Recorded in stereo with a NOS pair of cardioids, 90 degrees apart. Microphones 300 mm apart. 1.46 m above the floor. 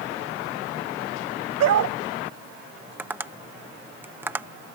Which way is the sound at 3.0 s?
5° right.